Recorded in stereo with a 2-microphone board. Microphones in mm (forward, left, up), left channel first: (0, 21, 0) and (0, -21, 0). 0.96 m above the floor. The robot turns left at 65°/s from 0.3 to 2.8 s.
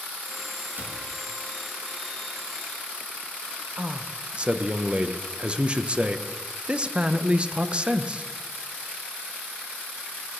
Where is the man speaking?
25° right (ahead or behind), 0.5 m.